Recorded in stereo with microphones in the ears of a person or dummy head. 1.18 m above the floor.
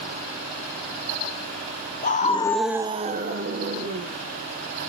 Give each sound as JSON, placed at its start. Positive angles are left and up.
{"t": 2.0, "sound": "a scream", "side_deg": 40, "distance_m": 0.9}